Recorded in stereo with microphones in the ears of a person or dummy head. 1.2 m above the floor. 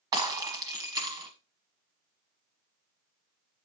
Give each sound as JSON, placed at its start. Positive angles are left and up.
{"t": 0.1, "sound": "breaking glass", "side_deg": -15, "distance_m": 1.2}